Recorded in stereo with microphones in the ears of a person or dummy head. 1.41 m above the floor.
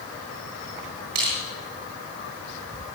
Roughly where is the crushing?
Right.